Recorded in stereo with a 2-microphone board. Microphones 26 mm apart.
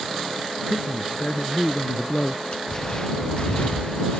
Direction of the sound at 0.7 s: 50° left (ahead or behind).